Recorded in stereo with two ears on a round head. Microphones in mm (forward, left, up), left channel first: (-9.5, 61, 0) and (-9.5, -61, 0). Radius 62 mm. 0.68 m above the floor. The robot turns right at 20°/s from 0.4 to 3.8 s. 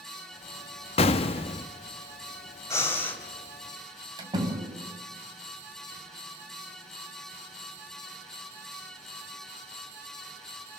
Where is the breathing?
25° left (ahead or behind), 2.5 m; by 3.2 s 15° left (ahead or behind), 2.5 m.